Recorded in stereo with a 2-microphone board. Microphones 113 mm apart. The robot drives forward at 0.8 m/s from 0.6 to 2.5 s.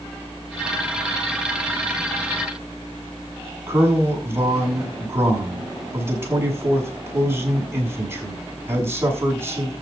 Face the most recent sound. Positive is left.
turn(degrees=-20)  # may be behind; listen again after turning